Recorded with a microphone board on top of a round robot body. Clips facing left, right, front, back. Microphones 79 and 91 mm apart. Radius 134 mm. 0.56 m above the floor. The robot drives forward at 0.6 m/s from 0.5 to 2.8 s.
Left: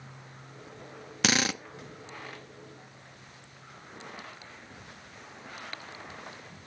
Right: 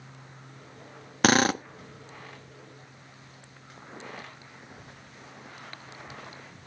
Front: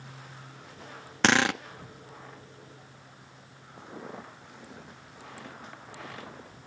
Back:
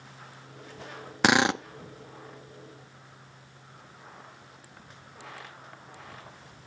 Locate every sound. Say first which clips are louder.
1.2 s a drill: right 7 dB, back 1 dB; 105° right; by 1.6 s 125° right
3.8 s footsteps: right 3 dB, front 9 dB; 25° right; by 6.6 s 10° right